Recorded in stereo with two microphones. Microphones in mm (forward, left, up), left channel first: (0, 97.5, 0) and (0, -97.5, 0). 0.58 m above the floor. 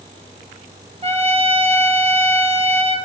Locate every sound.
1.0 s a trumpet: 30° right (ahead or behind), 0.6 m